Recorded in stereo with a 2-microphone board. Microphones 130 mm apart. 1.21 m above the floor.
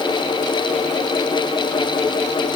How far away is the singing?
No singing in this recording.